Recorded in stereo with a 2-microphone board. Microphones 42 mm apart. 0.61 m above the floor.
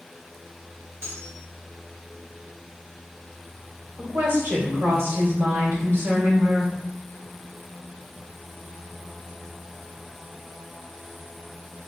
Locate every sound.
1.0 s cutlery clinking: 75° right (ahead or behind), 0.8 m
4.0 s a woman speaking: 65° right (ahead or behind), 1.5 m